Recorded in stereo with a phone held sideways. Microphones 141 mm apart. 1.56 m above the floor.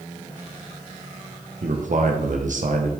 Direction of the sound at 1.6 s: 65° right (ahead or behind).